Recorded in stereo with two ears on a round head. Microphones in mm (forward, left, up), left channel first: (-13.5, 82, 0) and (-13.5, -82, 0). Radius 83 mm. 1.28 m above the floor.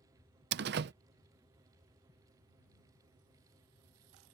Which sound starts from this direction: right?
A door slam, at 0.5 s.